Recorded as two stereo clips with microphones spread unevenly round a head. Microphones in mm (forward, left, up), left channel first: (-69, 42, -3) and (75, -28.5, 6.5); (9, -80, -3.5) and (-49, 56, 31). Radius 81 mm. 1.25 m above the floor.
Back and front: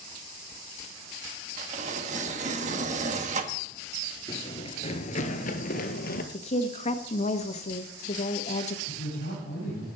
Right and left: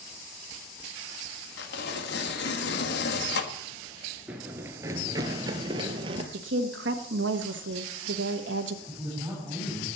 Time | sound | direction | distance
1.6 | tearing paper | 75° right | 1.6 m
4.3 | running footsteps | 130° left | 1.3 m
6.3 | a woman speaking | 105° left | 1.4 m
8.9 | a man speaking | 175° right | 9.5 m